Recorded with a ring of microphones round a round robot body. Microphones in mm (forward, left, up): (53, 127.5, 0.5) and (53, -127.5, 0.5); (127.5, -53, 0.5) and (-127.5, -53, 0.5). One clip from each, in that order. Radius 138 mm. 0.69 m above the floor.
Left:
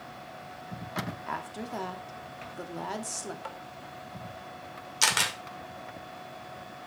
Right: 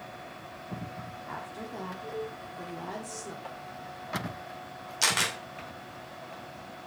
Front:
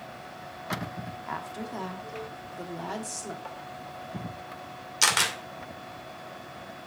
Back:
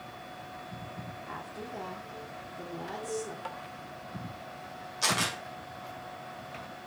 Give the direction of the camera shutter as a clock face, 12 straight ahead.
11 o'clock.